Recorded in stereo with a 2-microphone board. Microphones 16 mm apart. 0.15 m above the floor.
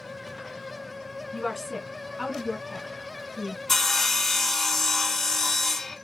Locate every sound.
1.3 s a woman speaking: 15° left (ahead or behind), 1.3 m; by 3.6 s 55° right (ahead or behind), 1.8 m
3.7 s sawing: 30° left (ahead or behind), 0.7 m